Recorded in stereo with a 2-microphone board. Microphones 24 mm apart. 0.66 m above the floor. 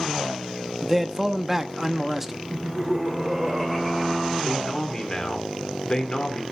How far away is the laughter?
About 2.5 m.